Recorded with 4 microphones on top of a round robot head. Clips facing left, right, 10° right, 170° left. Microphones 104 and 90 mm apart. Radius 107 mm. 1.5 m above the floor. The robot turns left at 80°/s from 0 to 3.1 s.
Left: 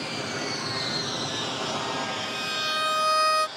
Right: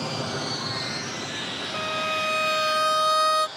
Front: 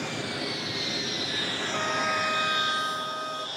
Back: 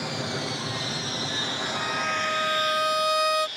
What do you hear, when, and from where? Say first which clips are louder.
0.0 s an aircraft: right 2 dB, back 2 dB; 115° right; by 3.6 s 5° right
1.7 s a violin: right 2 dB, front 2 dB; 60° right; by 3.5 s 170° right